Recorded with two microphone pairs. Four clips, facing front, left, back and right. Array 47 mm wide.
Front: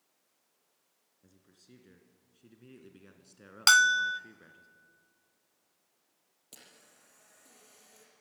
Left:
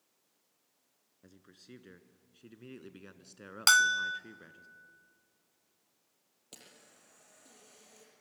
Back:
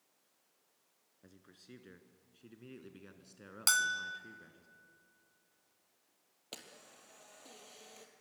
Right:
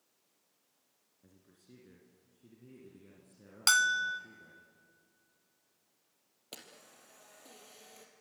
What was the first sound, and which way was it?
A man speaking, 135° left.